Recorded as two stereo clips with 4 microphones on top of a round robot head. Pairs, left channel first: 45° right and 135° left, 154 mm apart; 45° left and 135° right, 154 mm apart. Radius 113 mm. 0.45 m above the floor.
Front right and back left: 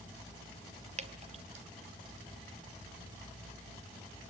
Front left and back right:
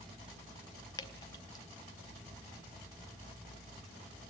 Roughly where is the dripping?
Left.